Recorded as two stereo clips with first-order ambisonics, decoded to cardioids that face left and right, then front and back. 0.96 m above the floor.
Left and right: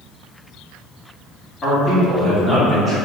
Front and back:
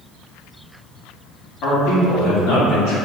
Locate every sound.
1.6 s a man speaking: 25° left, 1.9 m; by 3.0 s 10° left, 2.5 m